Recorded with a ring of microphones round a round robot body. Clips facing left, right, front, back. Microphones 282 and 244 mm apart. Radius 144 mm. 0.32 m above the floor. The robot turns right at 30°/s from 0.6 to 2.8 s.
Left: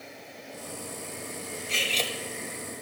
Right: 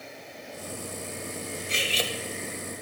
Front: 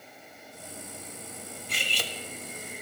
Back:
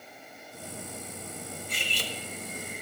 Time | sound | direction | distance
1.7 | cutlery clinking | 20° right | 0.8 m